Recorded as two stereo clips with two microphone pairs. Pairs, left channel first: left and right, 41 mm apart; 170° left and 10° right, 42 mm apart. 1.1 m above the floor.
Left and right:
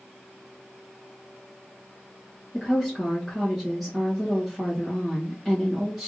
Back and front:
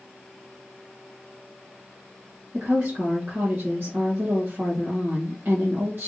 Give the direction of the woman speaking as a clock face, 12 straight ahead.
12 o'clock.